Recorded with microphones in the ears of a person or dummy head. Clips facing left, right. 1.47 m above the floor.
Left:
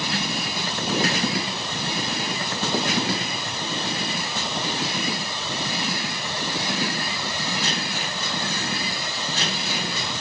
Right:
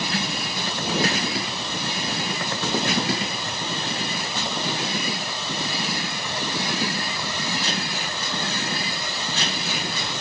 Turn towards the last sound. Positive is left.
No sound to turn to.